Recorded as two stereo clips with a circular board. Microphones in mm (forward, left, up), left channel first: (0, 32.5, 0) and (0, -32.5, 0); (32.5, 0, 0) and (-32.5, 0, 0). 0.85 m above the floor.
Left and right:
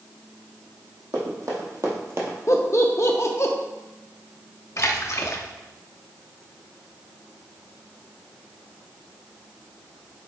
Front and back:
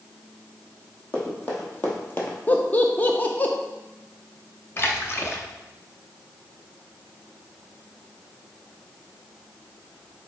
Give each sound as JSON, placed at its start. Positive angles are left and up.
{"t": 1.1, "sound": "running footsteps", "azimuth_deg": -65, "distance_m": 2.5}
{"t": 2.5, "sound": "laughter", "azimuth_deg": 60, "distance_m": 0.6}
{"t": 4.8, "sound": "a splash", "azimuth_deg": 50, "distance_m": 0.7}